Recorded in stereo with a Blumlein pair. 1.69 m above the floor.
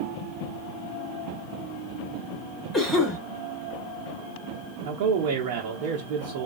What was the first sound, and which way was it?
A cough, 5° left.